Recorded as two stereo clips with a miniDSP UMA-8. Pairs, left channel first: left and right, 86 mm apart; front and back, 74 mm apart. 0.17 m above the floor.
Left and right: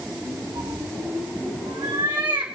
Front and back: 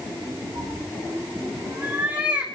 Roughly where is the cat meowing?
Behind right.